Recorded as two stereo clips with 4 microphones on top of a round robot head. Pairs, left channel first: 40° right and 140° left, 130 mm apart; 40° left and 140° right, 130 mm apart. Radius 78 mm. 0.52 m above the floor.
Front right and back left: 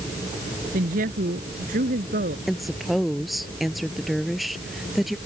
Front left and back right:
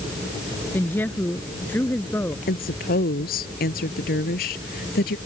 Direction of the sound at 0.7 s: 120° left.